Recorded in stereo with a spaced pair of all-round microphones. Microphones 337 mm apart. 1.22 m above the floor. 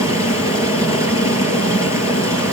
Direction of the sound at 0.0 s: 10° right (ahead or behind).